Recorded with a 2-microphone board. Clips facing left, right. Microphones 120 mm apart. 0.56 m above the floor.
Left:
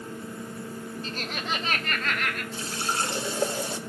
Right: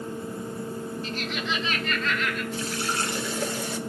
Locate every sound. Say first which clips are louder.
1.0 s laughter: even; 35° left (ahead or behind), 1.2 m; by 2.4 s 55° left (ahead or behind), 2 m
2.5 s a running tap: right 1 dB; 30° left (ahead or behind), 1.2 m